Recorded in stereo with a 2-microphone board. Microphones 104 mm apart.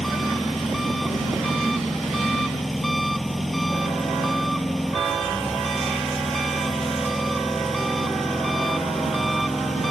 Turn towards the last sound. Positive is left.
turn(degrees=0)  # may be behind; listen again after turning